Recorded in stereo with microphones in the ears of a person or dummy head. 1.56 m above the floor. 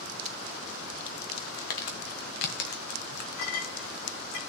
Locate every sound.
1.7 s crumpling: 60° left (ahead or behind), 1.2 m
3.4 s a clink: 60° left (ahead or behind), 2.5 m